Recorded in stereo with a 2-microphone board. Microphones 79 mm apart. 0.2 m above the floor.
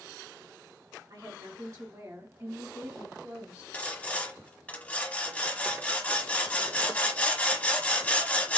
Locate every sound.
1.1 s a woman speaking: 55° right (ahead or behind), 1.8 m; by 3.6 s 20° right (ahead or behind), 1.5 m
3.7 s sawing: 20° left (ahead or behind), 0.9 m